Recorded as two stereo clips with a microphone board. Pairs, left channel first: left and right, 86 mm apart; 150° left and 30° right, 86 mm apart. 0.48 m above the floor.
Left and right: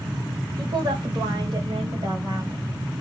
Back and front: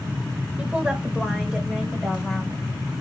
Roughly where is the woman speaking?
Right.